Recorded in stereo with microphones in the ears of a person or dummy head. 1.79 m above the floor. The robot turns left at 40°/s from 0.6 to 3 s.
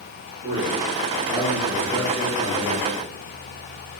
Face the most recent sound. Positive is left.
turn(degrees=125)